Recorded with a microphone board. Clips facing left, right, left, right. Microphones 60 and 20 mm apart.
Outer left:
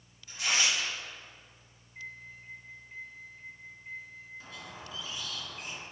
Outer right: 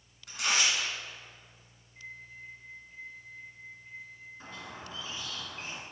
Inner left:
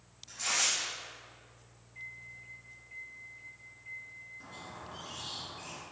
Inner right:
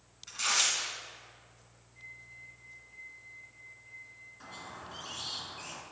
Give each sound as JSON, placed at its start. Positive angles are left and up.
{"t": 0.3, "sound": "tearing paper", "side_deg": -80, "distance_m": 2.5}
{"t": 1.9, "sound": "a microwave", "side_deg": 40, "distance_m": 1.9}
{"t": 4.4, "sound": "a squeak", "side_deg": -35, "distance_m": 1.1}